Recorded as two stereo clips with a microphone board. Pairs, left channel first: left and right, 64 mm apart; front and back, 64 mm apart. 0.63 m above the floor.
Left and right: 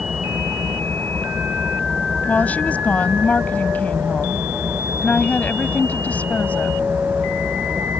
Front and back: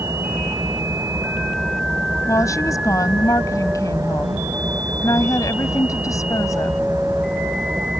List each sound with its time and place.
0.0 s an engine running: 150° right
2.3 s a woman speaking: 25° left